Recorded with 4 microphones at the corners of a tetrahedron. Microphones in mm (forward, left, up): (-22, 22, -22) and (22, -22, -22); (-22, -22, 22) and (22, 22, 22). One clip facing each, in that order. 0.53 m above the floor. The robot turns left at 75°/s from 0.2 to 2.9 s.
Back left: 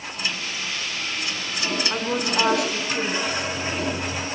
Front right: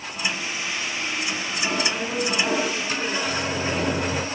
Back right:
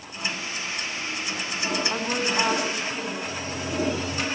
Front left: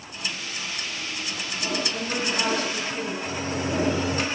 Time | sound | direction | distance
1.9 | a woman speaking | 160° right | 5.5 m
3.2 | a microwave | straight ahead | 1.2 m